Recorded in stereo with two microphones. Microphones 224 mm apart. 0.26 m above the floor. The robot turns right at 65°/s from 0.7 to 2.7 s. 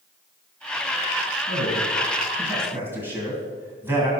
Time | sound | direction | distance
1.5 | a man speaking | 50° right (ahead or behind) | 2 m